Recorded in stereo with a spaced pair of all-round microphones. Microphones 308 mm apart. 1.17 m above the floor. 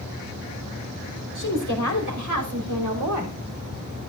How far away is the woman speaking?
About 5.5 m.